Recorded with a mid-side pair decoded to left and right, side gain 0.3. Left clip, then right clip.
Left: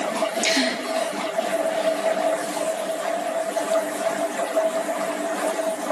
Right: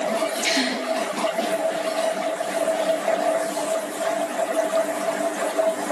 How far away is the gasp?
About 2.5 m.